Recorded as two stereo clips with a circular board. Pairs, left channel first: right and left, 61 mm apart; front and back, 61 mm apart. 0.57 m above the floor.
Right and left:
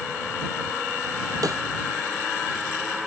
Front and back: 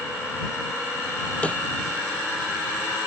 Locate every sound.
1.4 s a snare drum: 70° left